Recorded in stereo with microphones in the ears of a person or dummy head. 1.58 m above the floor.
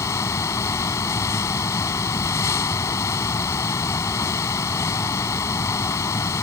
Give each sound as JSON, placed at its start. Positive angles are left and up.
{"t": 0.0, "sound": "a fan", "side_deg": 20}